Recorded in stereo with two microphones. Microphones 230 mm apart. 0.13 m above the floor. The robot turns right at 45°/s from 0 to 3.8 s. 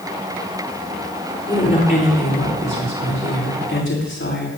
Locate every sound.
1.5 s a woman speaking: 15° left, 9.5 m; by 4.5 s 120° left, 9.5 m